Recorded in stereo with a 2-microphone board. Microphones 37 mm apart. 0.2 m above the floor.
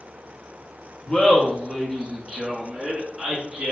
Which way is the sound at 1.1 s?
25° left (ahead or behind).